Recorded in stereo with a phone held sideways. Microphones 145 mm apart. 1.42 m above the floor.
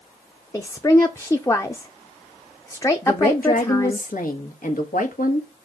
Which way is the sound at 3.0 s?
70° left (ahead or behind).